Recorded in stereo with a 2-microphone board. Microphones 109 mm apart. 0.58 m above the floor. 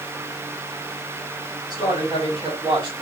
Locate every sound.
1.7 s a man speaking: 40° right (ahead or behind), 2 m; by 2.9 s 45° right (ahead or behind), 1.6 m